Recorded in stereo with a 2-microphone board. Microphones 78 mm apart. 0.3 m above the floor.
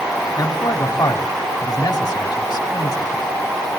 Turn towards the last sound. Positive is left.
turn(degrees=60)  # may be behind; listen again after turning